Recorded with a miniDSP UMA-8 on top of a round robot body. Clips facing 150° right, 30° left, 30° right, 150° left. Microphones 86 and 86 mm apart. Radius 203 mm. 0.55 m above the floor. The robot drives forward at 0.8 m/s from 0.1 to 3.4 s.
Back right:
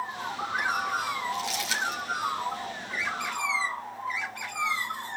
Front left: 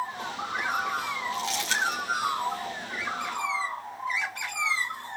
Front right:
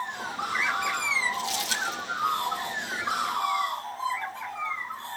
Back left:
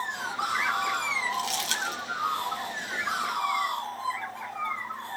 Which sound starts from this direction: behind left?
Crumpling, at 1.3 s.